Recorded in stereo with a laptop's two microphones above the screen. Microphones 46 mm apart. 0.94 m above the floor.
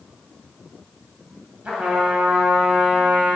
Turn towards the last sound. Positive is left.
turn(degrees=-30)  # may be behind; listen again after turning